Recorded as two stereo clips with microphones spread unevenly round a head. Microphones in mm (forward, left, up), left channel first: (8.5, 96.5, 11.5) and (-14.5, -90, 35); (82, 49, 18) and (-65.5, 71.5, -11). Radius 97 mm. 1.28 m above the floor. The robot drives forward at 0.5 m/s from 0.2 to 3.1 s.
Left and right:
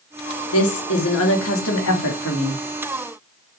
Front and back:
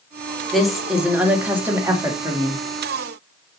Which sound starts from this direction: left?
A woman speaking, at 0.5 s.